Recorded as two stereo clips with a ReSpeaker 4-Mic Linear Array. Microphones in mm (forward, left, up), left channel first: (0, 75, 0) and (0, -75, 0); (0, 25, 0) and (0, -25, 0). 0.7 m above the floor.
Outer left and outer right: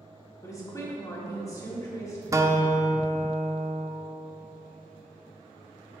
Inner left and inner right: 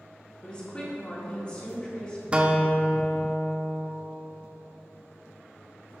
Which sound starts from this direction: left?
A woman speaking, at 0.4 s.